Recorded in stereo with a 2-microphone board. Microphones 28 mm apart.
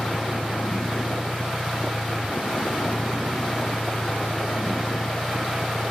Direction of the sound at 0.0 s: 75° left (ahead or behind).